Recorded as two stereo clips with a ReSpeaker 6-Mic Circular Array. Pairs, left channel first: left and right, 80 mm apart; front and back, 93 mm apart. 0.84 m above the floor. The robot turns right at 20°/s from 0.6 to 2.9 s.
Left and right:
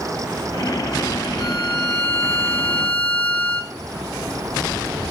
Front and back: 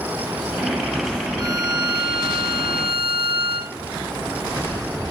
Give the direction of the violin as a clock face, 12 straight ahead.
8 o'clock.